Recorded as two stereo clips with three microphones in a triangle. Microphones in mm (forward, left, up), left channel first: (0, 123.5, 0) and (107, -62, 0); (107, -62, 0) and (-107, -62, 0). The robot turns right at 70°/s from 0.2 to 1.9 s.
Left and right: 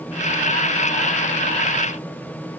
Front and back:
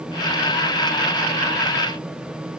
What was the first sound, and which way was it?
Only background noise.